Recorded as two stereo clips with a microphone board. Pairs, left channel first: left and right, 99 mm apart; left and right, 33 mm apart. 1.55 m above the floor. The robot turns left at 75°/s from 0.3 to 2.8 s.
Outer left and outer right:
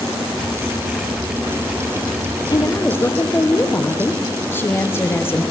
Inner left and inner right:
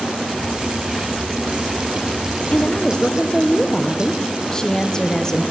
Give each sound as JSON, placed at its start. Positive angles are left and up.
{"t": 2.5, "sound": "a woman speaking", "side_deg": 40, "distance_m": 1.2}